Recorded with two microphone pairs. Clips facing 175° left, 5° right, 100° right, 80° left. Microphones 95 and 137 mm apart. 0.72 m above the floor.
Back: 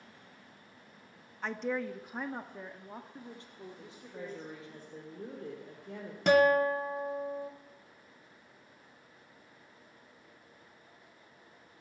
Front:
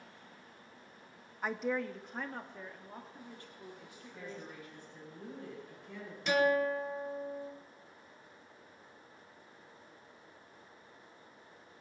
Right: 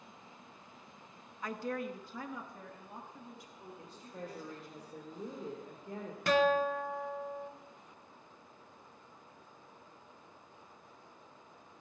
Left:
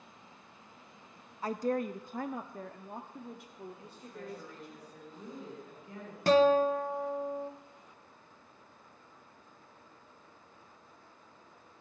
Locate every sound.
1.4 s a woman speaking: 70° left, 0.6 m; by 4.8 s 115° left, 2 m
3.8 s a woman speaking: 145° right, 3 m
6.3 s a guitar: 140° left, 1.2 m